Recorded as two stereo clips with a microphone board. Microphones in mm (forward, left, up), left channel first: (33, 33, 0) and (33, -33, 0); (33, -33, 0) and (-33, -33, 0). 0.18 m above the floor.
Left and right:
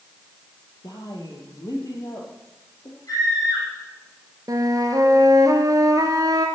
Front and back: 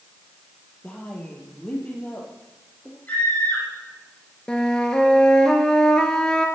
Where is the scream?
65° left, 7.5 m.